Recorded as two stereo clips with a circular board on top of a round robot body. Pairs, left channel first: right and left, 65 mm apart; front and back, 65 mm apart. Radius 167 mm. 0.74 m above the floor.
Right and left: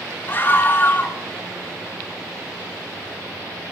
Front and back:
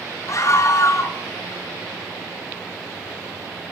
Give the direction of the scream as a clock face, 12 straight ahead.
1 o'clock.